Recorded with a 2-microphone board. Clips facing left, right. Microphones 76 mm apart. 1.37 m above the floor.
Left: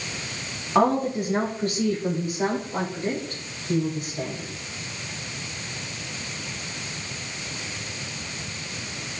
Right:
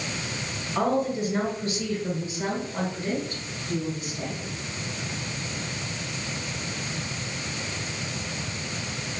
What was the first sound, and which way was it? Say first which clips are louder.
A woman speaking: left 4 dB; 55° left (ahead or behind).